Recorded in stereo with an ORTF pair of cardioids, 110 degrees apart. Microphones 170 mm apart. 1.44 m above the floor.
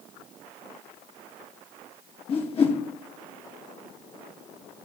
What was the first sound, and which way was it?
A whoosh, 35° left.